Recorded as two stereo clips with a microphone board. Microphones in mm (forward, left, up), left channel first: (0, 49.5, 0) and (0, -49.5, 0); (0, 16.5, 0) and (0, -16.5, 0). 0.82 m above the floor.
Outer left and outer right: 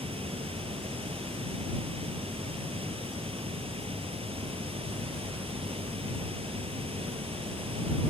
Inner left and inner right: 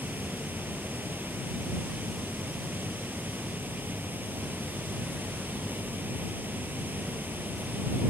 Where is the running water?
75° right (ahead or behind).